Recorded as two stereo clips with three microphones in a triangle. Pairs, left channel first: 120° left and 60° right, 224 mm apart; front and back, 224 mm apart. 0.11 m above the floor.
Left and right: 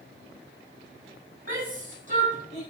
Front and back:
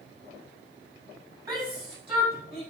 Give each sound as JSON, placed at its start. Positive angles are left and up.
{"t": 1.5, "sound": "a shout", "azimuth_deg": -110, "distance_m": 4.0}